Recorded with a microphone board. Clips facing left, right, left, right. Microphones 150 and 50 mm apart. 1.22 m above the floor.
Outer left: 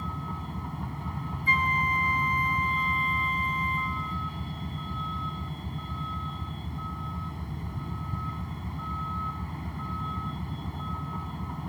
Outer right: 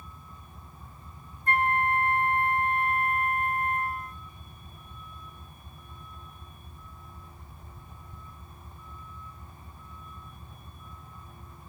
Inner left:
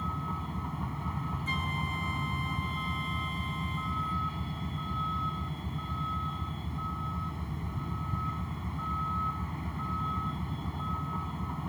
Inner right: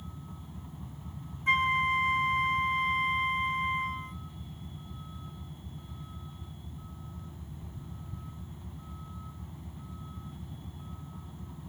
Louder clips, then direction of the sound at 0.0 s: Outer left 14 dB, inner left 12 dB; 85° left.